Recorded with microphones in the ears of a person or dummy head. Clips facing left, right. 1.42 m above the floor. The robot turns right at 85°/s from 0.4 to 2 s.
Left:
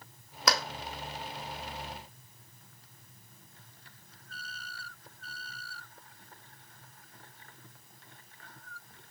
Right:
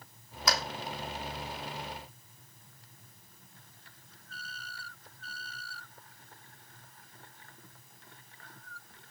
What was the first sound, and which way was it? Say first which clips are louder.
A clap: left 2 dB; 65° left (ahead or behind).